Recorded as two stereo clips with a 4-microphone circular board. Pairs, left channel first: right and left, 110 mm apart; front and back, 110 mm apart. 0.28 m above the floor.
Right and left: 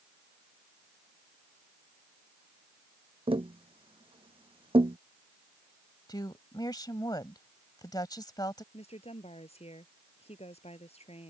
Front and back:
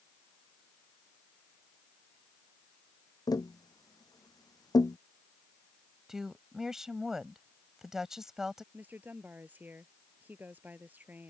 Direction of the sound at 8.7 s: 105° right.